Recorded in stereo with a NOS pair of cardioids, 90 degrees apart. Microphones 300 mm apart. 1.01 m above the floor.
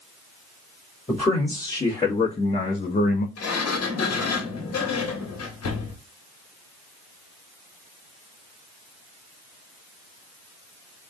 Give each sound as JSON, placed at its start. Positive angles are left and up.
{"t": 1.1, "sound": "a man speaking", "azimuth_deg": 15, "distance_m": 1.7}
{"t": 3.4, "sound": "a sliding door", "azimuth_deg": 55, "distance_m": 1.5}